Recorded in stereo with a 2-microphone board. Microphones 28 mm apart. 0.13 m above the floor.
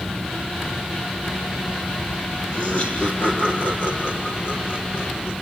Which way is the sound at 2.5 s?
35° left (ahead or behind).